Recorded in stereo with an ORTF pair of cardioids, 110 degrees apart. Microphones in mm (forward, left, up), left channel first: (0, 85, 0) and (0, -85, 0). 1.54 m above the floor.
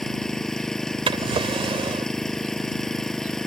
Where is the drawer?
35° right.